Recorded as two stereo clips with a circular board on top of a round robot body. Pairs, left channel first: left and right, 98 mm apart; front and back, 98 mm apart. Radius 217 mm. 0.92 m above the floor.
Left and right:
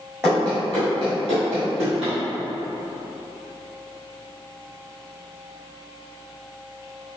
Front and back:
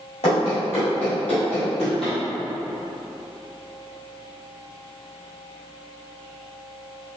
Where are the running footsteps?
10° right, 0.9 m; by 2.1 s 85° right, 2.5 m.